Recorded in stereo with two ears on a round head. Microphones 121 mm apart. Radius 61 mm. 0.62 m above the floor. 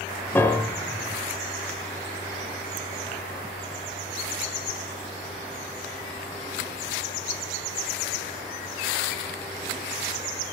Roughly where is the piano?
Centre.